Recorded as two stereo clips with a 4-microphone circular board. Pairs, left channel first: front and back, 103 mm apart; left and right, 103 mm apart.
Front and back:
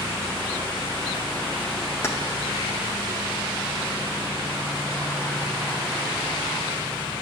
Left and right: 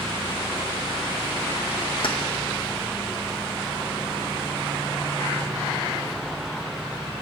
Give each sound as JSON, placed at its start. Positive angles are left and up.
{"t": 2.0, "sound": "keys jangling", "azimuth_deg": 60, "distance_m": 0.7}